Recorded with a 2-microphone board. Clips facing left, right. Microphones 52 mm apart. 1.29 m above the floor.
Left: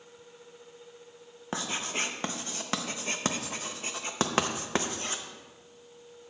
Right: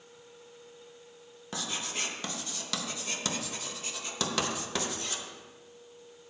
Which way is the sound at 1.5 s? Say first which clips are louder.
Left 4 dB; 35° left (ahead or behind).